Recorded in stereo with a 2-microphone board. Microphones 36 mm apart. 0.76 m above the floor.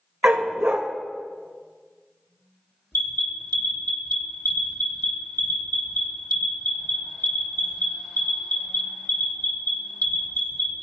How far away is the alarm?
About 1.5 m.